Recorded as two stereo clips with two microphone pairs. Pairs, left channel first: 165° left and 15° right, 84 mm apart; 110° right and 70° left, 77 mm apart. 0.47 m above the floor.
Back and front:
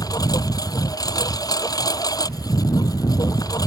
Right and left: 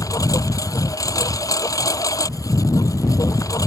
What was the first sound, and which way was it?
A lawn mower, 150° right.